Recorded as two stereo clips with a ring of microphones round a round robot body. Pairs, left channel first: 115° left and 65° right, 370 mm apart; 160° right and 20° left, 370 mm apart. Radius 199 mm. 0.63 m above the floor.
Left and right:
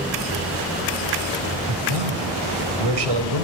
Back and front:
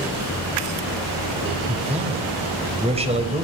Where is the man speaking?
50° right, 4.5 m.